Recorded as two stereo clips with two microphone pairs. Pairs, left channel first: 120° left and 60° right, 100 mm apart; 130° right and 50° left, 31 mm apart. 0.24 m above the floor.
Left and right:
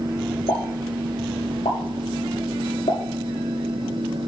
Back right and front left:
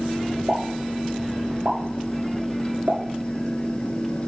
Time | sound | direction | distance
0.5 | a pop | 95° left | 6.5 m